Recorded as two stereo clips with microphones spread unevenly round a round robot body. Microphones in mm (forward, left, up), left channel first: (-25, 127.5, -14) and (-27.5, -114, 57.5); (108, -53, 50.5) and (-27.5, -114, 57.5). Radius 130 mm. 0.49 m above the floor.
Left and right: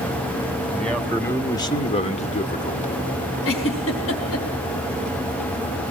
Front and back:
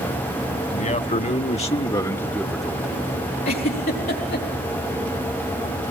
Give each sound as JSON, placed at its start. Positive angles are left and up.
{"t": 0.7, "sound": "a man speaking", "azimuth_deg": 10, "distance_m": 2.0}
{"t": 3.5, "sound": "a giggle", "azimuth_deg": 55, "distance_m": 4.0}